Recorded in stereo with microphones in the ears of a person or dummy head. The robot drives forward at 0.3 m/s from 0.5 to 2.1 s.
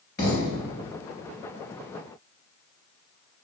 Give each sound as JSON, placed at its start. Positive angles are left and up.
{"t": 0.2, "sound": "a thud", "side_deg": 15, "distance_m": 2.0}